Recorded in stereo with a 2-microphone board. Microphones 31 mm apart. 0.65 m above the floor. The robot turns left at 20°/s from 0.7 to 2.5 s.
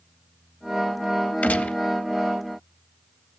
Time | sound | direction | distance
1.4 | a gunshot | 60° left (ahead or behind) | 0.8 m